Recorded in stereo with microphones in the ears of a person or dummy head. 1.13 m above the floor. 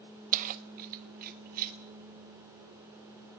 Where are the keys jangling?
40° right (ahead or behind), 0.8 m; by 1.8 s 45° right (ahead or behind), 2 m.